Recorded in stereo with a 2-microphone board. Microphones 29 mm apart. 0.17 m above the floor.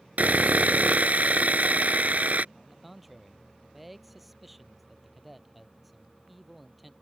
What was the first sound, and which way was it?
Sawing, 60° right (ahead or behind).